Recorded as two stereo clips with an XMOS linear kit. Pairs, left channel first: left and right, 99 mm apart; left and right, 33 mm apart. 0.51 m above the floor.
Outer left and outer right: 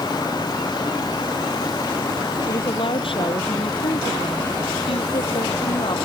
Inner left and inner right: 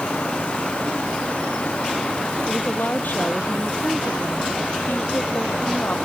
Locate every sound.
2.5 s a woman speaking: 60° left (ahead or behind); by 6.0 s 70° left (ahead or behind)